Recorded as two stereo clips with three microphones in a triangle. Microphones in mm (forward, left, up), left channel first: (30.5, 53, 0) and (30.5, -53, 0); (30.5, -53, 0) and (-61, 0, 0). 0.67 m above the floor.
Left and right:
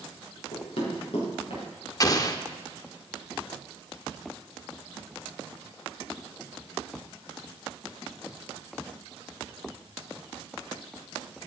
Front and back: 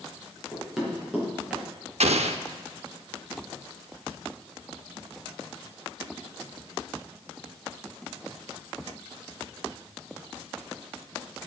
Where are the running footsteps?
65° left, 5 m.